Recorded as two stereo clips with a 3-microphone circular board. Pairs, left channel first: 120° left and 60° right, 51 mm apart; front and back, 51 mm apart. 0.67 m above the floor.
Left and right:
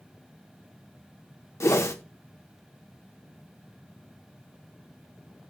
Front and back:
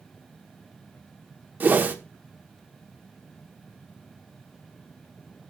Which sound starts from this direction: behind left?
A whoosh, at 1.6 s.